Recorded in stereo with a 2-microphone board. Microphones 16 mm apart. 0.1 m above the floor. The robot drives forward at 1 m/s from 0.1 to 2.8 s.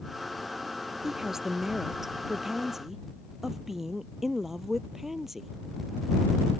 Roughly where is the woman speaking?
Right.